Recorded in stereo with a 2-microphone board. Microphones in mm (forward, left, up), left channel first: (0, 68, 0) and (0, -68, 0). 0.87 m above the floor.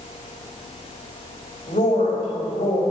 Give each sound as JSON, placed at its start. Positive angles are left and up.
{"t": 1.7, "sound": "a woman speaking", "side_deg": 65, "distance_m": 4.0}